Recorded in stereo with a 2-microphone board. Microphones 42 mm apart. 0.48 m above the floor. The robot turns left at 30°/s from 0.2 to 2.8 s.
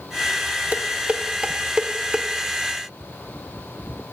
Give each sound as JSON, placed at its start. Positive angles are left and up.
{"t": 0.7, "sound": "dishes clattering", "side_deg": -40, "distance_m": 0.8}